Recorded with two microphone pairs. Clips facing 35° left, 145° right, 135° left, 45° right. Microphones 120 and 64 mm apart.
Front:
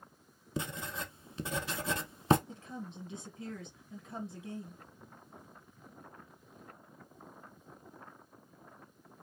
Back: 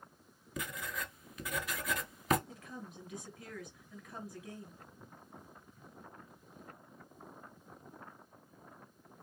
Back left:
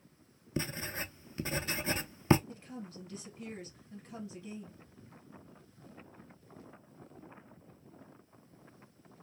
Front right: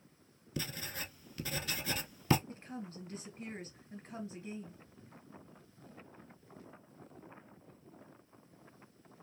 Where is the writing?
80° left, 0.5 m.